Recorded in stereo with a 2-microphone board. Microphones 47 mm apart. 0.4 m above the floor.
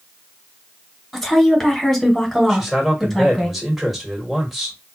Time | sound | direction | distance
1.1 | a woman speaking | centre (ahead or behind) | 1.5 m
2.5 | a man speaking | 5° right (ahead or behind) | 1.5 m